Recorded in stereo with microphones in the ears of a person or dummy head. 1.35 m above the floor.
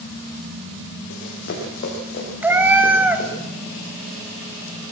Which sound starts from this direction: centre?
A cat meowing, at 2.4 s.